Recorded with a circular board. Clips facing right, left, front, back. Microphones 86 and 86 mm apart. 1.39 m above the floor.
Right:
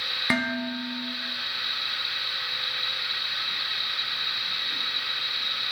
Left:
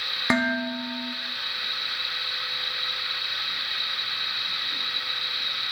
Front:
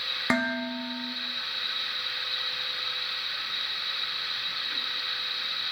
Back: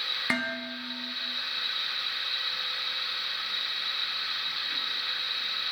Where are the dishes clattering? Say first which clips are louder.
Left 3 dB, front 5 dB; 45° left, 0.5 m.